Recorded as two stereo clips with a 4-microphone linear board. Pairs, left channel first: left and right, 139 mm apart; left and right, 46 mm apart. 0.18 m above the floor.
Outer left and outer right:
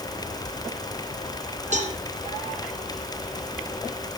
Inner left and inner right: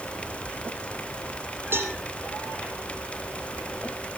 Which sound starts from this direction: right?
A cowbell, at 1.7 s.